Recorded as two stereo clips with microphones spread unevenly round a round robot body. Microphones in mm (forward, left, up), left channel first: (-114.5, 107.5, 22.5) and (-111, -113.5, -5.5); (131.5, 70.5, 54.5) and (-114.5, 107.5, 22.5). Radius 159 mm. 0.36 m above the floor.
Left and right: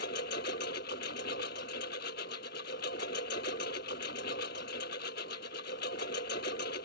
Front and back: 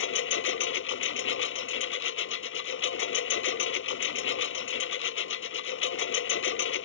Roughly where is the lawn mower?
Ahead left.